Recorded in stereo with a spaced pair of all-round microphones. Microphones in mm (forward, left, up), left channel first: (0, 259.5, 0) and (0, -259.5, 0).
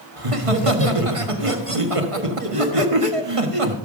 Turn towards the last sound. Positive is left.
turn(degrees=-85)